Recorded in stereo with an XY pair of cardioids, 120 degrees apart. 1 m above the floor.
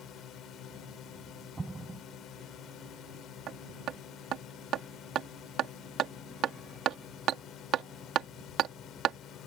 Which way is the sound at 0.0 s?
65° left.